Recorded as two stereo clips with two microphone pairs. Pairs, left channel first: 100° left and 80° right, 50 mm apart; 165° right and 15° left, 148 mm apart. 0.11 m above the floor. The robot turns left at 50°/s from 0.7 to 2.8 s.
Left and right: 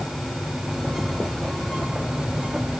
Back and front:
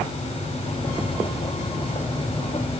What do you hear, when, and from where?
Only background noise.